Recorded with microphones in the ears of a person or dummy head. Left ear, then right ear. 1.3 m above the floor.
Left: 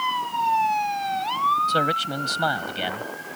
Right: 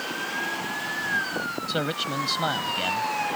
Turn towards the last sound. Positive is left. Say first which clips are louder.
# left 5 dB
turn(degrees=20)  # may be behind; listen again after turning